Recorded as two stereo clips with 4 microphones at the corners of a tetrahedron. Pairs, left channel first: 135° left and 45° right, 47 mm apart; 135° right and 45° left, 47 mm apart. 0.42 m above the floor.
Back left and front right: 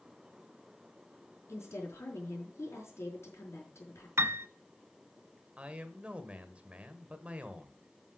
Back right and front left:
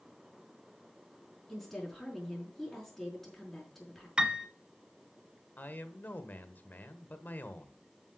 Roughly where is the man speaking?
Right.